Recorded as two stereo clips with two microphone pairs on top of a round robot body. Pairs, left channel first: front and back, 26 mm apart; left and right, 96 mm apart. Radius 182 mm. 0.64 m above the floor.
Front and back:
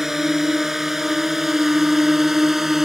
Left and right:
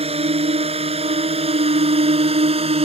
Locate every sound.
0.0 s a drone: 95° right